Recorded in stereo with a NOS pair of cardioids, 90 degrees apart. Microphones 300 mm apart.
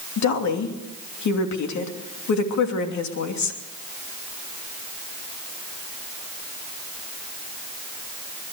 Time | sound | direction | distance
0.2 | a woman speaking | 70° left | 3 m